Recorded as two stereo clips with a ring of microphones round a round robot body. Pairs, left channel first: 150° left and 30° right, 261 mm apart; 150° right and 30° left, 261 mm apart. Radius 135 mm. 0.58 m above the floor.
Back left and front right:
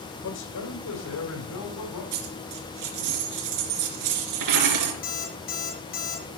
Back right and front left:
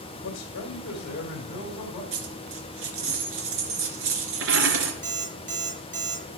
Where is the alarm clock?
90° left, 5 m.